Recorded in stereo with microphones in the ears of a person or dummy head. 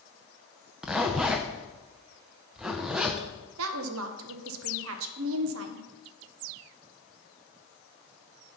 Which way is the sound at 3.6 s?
80° right.